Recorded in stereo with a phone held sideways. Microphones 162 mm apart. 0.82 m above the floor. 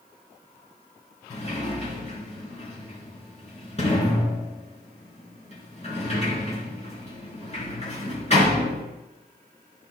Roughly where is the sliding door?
Left.